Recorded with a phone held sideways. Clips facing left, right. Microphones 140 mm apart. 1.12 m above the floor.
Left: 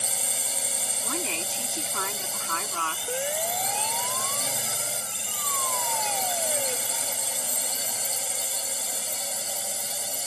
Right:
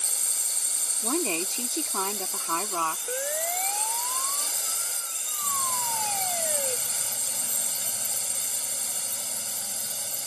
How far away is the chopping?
No chopping in this recording.